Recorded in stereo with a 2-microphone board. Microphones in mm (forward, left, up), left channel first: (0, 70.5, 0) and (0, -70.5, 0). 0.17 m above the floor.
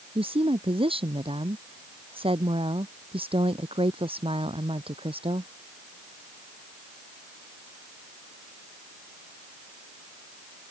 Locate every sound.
0.1 s a woman speaking: 40° right (ahead or behind)